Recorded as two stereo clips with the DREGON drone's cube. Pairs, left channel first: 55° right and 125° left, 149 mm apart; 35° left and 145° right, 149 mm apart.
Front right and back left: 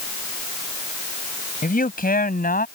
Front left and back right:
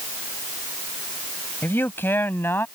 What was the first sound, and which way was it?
A man speaking, 40° right.